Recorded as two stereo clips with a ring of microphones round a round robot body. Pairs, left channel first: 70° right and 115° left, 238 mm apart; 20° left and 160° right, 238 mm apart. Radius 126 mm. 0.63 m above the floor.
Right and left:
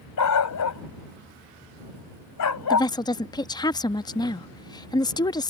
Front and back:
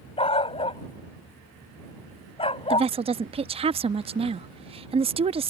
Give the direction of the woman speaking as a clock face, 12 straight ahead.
4 o'clock.